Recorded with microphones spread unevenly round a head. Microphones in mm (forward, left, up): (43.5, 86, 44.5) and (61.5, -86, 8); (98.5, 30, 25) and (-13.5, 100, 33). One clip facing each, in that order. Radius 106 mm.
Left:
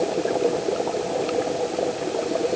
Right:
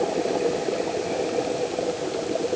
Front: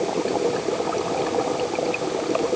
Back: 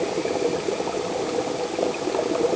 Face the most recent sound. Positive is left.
No sound to turn to.